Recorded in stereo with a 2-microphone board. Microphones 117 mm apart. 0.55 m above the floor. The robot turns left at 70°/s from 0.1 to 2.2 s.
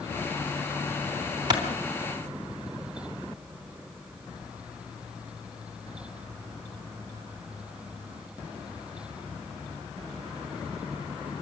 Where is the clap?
35° right (ahead or behind), 3.5 m; by 1.6 s 45° right (ahead or behind), 3.5 m.